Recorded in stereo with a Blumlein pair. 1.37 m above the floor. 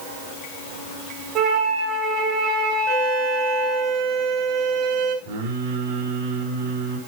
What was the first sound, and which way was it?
A flute, 35° right.